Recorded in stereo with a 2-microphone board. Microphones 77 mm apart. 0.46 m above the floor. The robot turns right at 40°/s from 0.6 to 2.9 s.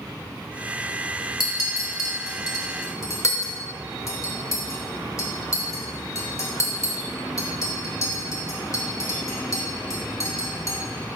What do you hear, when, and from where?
1.4 s a clink: 45° left (ahead or behind), 0.9 m; by 10.8 s 40° left (ahead or behind), 0.9 m